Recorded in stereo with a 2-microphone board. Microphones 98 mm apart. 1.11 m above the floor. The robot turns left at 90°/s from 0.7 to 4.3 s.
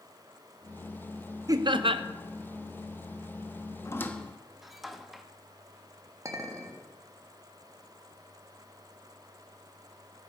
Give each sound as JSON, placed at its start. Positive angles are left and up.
{"t": 1.5, "sound": "laughter", "azimuth_deg": -40, "distance_m": 0.7}
{"t": 3.9, "sound": "a squeak", "side_deg": 35, "distance_m": 0.7}
{"t": 6.2, "sound": "a clink", "side_deg": -35, "distance_m": 1.2}